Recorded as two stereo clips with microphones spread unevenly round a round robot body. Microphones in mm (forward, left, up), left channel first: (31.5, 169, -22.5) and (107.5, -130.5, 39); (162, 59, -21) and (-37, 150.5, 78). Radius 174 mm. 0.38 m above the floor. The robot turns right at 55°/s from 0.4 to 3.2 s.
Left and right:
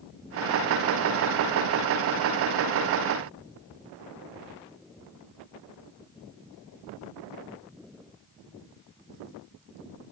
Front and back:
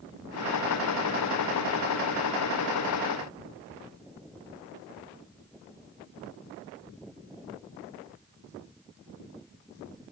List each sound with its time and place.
Only background noise.